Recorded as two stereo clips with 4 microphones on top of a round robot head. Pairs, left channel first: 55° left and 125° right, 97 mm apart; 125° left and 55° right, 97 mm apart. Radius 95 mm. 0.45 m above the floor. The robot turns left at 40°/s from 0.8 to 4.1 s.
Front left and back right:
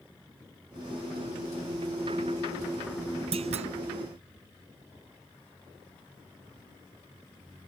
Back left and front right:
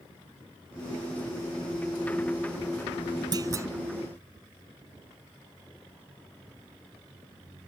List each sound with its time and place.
3.3 s a clunk: 105° right; by 3.7 s 115° right